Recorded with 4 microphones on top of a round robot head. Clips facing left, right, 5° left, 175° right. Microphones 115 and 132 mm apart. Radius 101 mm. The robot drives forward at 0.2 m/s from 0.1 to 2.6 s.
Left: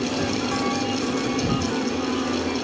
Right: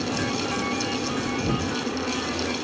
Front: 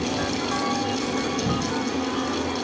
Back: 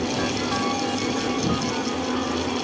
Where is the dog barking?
I don't hear a dog barking.